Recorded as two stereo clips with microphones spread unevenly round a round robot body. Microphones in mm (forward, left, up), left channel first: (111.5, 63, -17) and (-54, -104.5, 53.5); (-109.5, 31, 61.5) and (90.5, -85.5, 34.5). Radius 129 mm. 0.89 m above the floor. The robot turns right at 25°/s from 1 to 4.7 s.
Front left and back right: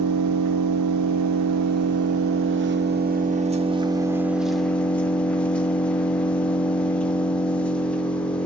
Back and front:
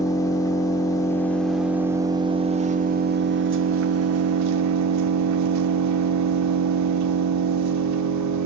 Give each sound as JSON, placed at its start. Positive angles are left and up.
{"t": 0.0, "sound": "an engine running", "azimuth_deg": -135, "distance_m": 1.2}